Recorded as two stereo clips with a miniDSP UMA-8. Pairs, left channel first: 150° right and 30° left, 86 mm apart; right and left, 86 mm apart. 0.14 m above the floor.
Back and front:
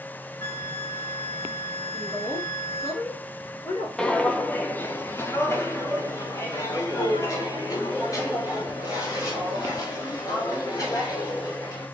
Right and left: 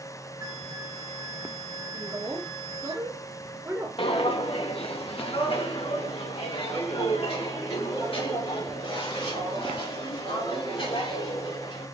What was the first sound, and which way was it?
A flute, 150° left.